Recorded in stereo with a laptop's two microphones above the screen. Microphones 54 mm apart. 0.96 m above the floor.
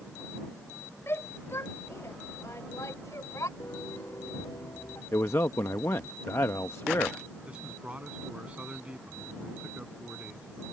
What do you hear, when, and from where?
1.1 s a shout: 50° left (ahead or behind); by 3.5 s 75° left (ahead or behind)
3.6 s a piano: 80° left
5.1 s a man speaking: 60° left (ahead or behind)
7.5 s a man speaking: 20° right (ahead or behind)